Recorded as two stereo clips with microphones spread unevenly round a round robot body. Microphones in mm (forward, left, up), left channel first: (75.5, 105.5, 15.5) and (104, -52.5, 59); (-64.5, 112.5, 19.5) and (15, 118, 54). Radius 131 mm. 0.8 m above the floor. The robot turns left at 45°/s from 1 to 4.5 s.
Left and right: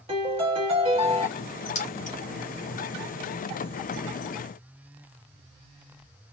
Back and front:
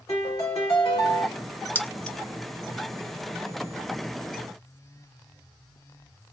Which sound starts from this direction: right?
A piano, at 0.1 s.